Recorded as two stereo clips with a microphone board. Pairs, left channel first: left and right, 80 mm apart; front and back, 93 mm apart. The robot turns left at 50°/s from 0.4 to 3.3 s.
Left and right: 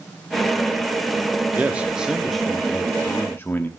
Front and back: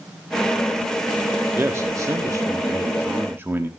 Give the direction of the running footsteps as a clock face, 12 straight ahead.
I don't hear running footsteps.